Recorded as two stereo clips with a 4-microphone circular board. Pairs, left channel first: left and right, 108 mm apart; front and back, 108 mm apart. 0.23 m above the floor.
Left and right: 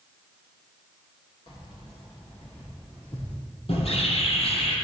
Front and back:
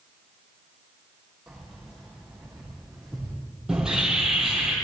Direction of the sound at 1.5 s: 90° left.